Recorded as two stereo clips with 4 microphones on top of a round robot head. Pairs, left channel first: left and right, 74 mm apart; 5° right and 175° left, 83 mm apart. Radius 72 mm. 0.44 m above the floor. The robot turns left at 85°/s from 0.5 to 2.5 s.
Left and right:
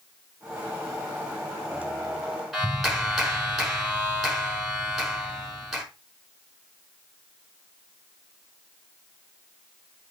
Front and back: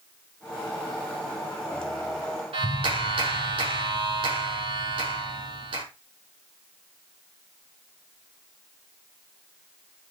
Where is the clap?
Straight behind, 5 m.